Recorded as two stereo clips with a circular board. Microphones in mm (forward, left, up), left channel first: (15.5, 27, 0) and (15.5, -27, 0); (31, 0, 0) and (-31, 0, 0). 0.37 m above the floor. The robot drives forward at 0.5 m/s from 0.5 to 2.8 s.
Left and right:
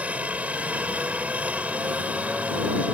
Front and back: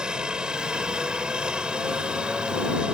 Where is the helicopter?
120° right.